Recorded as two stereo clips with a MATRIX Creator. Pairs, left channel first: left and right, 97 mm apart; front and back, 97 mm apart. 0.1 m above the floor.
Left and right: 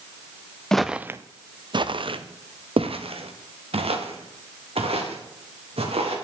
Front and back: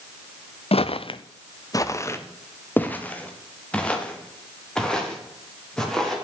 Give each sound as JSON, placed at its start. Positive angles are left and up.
{"t": 0.7, "sound": "footsteps", "azimuth_deg": 5, "distance_m": 0.5}